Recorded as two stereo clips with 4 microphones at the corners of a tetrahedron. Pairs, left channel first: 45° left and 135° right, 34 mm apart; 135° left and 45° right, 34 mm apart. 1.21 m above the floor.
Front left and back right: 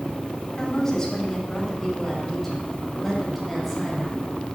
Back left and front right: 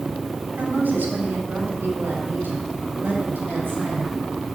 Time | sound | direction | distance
0.6 | a woman speaking | 25° right | 3.5 m